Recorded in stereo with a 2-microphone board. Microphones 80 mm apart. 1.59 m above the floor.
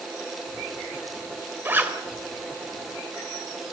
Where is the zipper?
25° right (ahead or behind), 3 m.